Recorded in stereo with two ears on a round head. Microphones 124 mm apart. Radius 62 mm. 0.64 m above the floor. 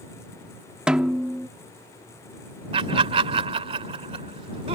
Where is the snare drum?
5° right (ahead or behind).